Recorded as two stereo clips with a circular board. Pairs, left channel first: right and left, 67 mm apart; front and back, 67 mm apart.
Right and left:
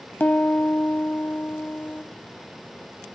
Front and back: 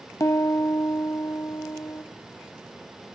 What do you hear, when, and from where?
0.2 s a piano: 30° right, 0.5 m